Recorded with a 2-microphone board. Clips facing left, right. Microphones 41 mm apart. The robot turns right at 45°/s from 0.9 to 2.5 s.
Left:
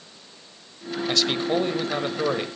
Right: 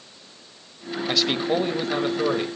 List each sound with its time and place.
1.1 s a man speaking: 10° right (ahead or behind), 0.9 m; by 2.5 s 10° left (ahead or behind), 0.9 m